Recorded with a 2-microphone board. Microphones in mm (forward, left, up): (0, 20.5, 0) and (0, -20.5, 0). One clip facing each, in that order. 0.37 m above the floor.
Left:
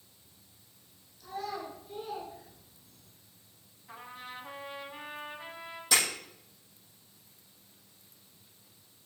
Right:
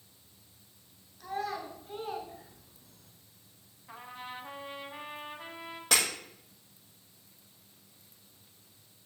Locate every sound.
1.2 s a child speaking: 65° right (ahead or behind), 3 m; by 3.1 s 75° right (ahead or behind), 2 m
3.9 s a trumpet: 10° right (ahead or behind), 1.5 m
5.9 s breaking glass: 50° right (ahead or behind), 6.5 m